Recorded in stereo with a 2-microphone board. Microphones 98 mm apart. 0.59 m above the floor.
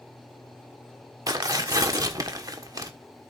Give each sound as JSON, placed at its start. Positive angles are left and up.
{"t": 1.3, "sound": "tearing paper", "side_deg": -40, "distance_m": 1.4}